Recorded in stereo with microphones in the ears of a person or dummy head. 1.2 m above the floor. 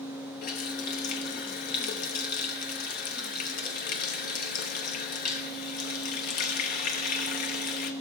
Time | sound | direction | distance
0.4 | a running tap | 45° left (ahead or behind) | 0.7 m